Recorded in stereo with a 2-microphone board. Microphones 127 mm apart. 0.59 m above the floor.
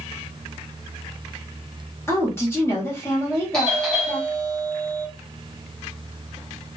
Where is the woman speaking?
20° left (ahead or behind), 1.2 m.